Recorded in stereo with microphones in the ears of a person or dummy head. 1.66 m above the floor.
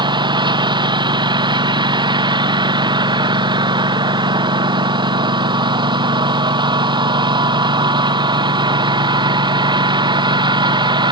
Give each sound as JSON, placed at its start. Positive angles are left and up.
{"t": 0.0, "sound": "a lawn mower", "side_deg": -25}